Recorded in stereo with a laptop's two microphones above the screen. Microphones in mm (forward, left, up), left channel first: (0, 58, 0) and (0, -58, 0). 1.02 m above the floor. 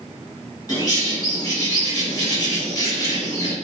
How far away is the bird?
About 1.6 m.